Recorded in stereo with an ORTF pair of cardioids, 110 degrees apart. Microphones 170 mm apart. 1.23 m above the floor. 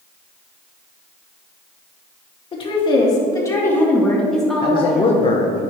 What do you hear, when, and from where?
2.5 s a woman speaking: 30° left, 2 m; by 5.2 s 10° right, 2 m
4.6 s a man speaking: 35° left, 0.9 m